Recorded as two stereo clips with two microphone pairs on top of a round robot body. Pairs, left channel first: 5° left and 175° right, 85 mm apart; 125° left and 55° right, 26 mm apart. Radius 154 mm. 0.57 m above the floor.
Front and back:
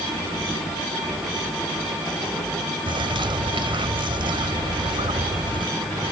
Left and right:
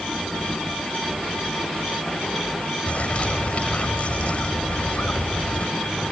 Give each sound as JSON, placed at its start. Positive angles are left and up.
{"t": 2.9, "sound": "a bird", "azimuth_deg": 165}